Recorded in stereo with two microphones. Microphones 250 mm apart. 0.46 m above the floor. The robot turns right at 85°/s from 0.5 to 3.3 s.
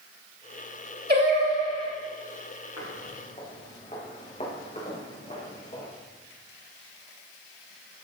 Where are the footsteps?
75° left (ahead or behind), 4.5 m; by 5.9 s 30° left (ahead or behind), 6 m.